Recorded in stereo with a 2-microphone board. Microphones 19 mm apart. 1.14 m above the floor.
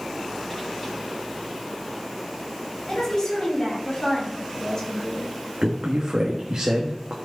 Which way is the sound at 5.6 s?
55° right (ahead or behind).